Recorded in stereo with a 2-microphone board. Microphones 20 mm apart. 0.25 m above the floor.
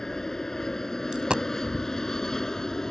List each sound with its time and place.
0.0 s an aircraft: 25° left (ahead or behind)
1.1 s a dropped coin: 50° right (ahead or behind)